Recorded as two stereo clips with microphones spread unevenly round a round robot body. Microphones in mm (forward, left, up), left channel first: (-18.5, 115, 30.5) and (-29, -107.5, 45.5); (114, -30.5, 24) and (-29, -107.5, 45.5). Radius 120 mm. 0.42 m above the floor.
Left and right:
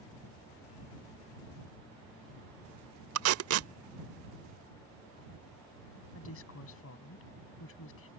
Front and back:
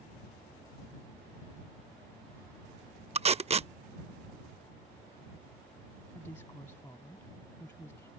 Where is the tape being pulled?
100° right.